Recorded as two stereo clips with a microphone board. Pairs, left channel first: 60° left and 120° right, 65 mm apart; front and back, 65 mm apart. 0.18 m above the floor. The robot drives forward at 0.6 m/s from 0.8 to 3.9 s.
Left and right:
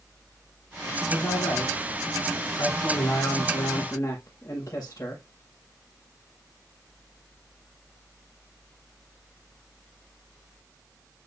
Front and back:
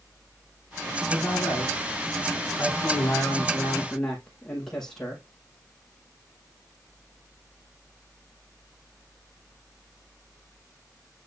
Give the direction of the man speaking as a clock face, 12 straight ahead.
10 o'clock.